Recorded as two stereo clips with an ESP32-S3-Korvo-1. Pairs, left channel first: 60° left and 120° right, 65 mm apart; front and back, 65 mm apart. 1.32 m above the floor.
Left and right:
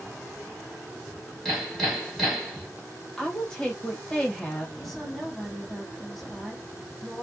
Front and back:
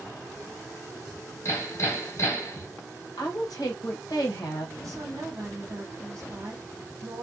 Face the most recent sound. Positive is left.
turn(degrees=145)